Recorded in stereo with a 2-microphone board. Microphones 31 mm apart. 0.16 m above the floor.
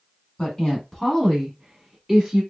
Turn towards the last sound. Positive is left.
turn(degrees=-15)  # may be behind; listen again after turning